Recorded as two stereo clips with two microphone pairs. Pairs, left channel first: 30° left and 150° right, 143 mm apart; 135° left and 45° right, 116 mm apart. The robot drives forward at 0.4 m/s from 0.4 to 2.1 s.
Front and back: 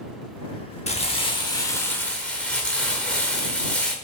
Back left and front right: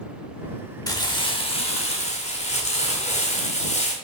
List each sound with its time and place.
0.9 s crumpling: 75° left, 0.7 m; by 3.9 s 115° left, 0.8 m